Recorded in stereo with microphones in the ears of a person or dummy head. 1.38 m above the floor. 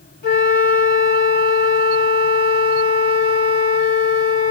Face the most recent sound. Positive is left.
turn(degrees=50)  # may be behind; listen again after turning